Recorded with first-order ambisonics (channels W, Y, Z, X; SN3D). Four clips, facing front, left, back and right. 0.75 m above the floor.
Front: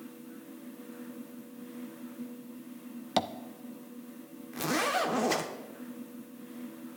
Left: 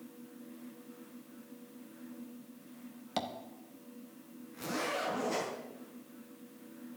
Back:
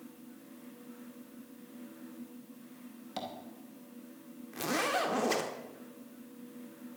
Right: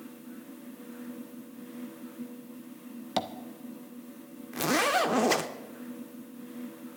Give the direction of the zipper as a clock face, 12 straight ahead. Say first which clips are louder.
Right 10 dB, front 2 dB; 3 o'clock.